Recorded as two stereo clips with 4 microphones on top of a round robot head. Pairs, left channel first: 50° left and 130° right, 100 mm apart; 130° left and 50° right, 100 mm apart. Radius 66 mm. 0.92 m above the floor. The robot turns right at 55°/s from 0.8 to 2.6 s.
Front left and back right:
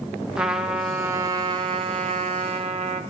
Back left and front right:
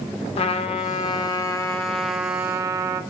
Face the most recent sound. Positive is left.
turn(degrees=-110)